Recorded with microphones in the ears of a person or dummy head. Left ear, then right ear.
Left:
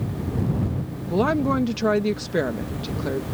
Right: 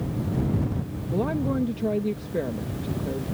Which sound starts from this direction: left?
A woman speaking, at 1.1 s.